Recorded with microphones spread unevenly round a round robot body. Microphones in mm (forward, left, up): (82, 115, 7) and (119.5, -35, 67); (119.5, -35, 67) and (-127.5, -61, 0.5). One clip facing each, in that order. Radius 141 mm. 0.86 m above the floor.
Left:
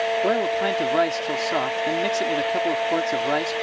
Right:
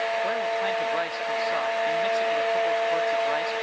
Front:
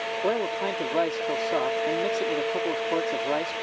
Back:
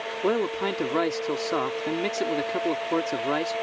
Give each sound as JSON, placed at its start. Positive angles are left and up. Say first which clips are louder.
{"t": 0.2, "sound": "a man speaking", "louder": "left 5 dB, back 3 dB", "azimuth_deg": 125}